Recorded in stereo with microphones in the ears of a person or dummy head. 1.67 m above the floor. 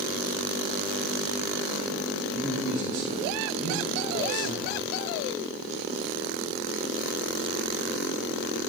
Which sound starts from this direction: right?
A man speaking, at 2.3 s.